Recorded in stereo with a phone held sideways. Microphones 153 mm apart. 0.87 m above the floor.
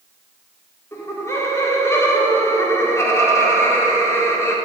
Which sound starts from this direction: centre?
Laughter, at 0.9 s.